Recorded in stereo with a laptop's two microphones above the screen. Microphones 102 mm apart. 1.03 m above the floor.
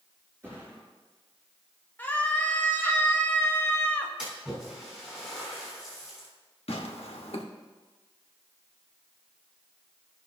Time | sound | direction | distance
0.4 | a thud | 30° right (ahead or behind) | 4.5 m
2.0 | a scream | 15° left (ahead or behind) | 1.1 m
4.2 | a splash | 5° right (ahead or behind) | 4 m
6.7 | tearing paper | 80° left | 1.2 m